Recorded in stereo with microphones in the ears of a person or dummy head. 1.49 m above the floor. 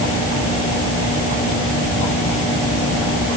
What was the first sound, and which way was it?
Only background noise.